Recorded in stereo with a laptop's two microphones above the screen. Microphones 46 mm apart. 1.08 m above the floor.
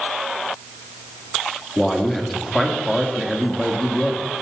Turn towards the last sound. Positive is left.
turn(degrees=0)  # may be behind; listen again after turning